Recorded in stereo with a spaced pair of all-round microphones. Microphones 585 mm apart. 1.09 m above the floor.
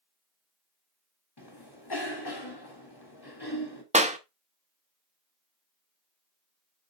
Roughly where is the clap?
Centre.